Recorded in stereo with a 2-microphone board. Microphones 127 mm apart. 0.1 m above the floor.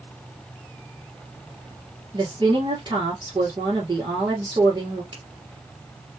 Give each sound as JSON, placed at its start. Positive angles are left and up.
{"t": 2.1, "sound": "a woman speaking", "side_deg": -40, "distance_m": 2.0}
{"t": 5.1, "sound": "a finger snap", "side_deg": -35, "distance_m": 1.9}